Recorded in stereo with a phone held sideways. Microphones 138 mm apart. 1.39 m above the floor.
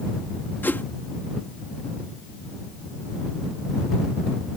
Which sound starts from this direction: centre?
A whoosh, at 0.6 s.